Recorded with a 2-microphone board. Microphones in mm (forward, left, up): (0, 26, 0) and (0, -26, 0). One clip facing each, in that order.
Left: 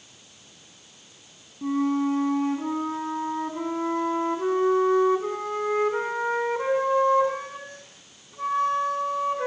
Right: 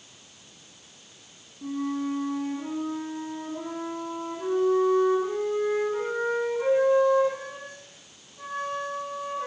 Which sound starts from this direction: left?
A flute, at 1.6 s.